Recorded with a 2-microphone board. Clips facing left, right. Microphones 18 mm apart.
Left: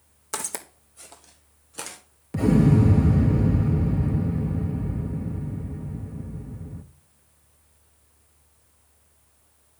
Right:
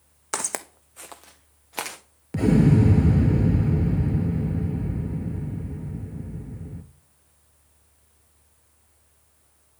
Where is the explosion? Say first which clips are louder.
Even; 15° right (ahead or behind), 0.8 m.